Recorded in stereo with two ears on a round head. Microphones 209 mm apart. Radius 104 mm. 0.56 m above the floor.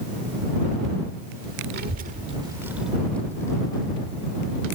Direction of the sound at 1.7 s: 45° right (ahead or behind).